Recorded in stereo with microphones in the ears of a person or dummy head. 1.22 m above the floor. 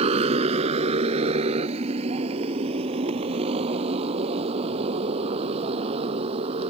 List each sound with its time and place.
0.0 s a motorcycle: 40° right (ahead or behind); by 6.7 s 35° right (ahead or behind)